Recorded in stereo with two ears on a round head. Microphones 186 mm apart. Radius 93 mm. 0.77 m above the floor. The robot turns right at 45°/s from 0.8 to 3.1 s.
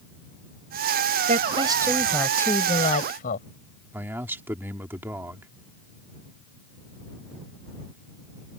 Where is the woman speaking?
40° right; by 3.5 s 45° left.